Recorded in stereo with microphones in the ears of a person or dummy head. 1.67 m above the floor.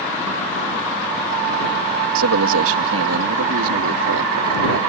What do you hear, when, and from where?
2.1 s a man speaking: 70° right (ahead or behind)